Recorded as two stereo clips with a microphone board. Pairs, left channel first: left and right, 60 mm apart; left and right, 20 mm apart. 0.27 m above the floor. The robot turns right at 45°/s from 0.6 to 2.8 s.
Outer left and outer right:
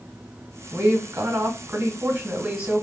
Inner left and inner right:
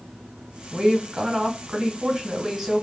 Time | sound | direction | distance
0.7 | a woman speaking | 125° right | 1.1 m